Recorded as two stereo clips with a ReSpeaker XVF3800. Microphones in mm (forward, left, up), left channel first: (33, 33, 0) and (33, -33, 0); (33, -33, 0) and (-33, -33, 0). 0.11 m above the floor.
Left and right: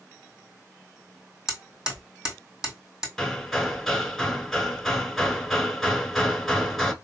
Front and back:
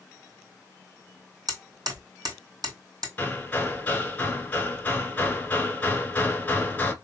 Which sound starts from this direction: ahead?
Hammering, at 3.2 s.